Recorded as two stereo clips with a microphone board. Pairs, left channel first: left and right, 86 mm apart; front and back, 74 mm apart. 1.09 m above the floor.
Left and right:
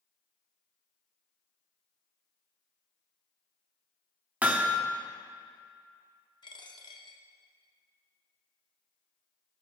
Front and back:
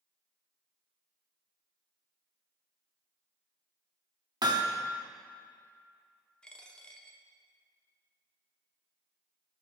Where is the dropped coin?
75° left, 0.9 m.